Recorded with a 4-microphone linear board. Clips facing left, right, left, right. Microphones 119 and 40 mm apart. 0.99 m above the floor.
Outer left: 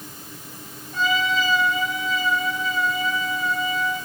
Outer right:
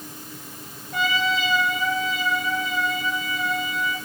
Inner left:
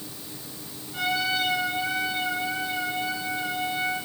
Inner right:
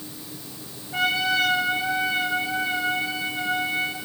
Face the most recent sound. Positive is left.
turn(degrees=-75)  # may be behind; listen again after turning